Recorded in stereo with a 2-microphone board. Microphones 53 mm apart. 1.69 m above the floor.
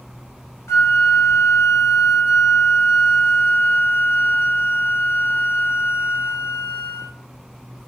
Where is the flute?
65° left (ahead or behind), 0.8 m.